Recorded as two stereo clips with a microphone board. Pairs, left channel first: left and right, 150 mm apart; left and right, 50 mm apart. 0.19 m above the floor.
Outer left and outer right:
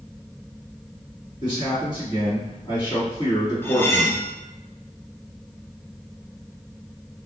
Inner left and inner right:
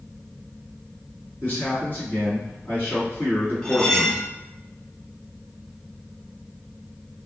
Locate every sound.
1.4 s a man speaking: 35° left (ahead or behind), 1.9 m
3.6 s cutlery clinking: 15° left (ahead or behind), 0.6 m